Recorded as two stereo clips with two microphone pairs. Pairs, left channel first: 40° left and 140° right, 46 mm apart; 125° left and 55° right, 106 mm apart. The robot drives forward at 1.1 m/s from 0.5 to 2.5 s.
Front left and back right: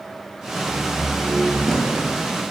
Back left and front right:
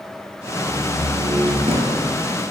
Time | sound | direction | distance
0.6 | a door slam | 25° right | 5 m